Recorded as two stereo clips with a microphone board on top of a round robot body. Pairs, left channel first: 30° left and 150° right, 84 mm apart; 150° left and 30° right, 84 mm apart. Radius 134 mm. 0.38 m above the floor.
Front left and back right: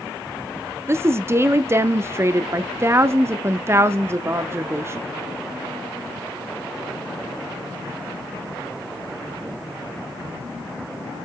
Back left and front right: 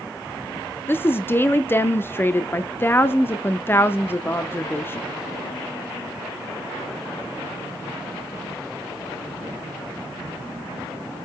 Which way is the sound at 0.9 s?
175° right.